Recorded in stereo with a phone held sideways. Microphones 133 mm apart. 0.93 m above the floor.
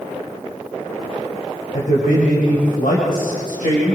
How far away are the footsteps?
No footsteps in this recording.